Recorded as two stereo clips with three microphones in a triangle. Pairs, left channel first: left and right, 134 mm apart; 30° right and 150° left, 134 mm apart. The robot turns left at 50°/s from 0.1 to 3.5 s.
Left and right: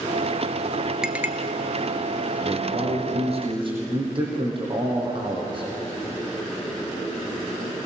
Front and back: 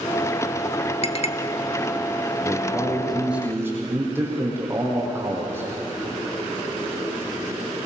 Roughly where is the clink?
Ahead.